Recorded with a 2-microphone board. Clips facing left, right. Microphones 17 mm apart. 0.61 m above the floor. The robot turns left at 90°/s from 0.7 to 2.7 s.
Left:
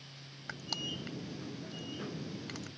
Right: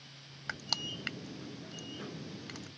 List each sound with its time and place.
0.5 s crushing: 20° right (ahead or behind); by 2.7 s 20° left (ahead or behind)